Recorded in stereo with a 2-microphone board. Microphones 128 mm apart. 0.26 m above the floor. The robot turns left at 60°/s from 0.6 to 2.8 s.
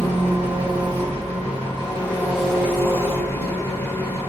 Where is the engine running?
70° right, 1.8 m; by 4.3 s 160° left, 1.8 m.